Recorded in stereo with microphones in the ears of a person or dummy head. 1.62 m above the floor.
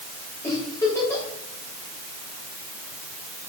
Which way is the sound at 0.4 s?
15° left (ahead or behind).